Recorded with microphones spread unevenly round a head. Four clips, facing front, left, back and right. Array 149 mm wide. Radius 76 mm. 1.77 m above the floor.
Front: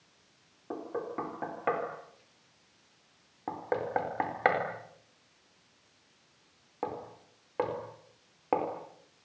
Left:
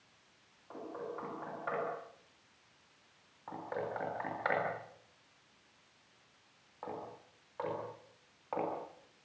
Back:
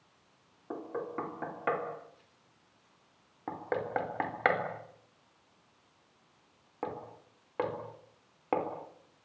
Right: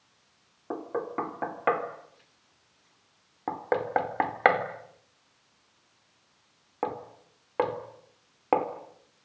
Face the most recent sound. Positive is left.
turn(degrees=-85)